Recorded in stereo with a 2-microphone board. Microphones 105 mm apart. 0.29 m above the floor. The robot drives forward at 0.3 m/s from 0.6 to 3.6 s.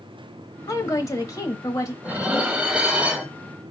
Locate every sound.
0.7 s a woman speaking: 35° left (ahead or behind), 1.1 m; by 1.9 s 30° left (ahead or behind), 1.1 m
2.0 s dishes clattering: 10° right (ahead or behind), 0.8 m